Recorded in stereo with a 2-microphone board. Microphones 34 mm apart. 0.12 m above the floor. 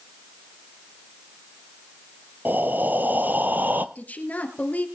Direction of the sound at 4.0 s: 45° left (ahead or behind).